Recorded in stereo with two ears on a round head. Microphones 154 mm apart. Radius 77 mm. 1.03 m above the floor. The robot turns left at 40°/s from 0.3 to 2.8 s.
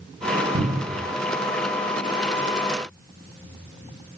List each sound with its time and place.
0.5 s a cupboard door: 60° right (ahead or behind), 1.8 m; by 1.0 s 70° right (ahead or behind), 1.8 m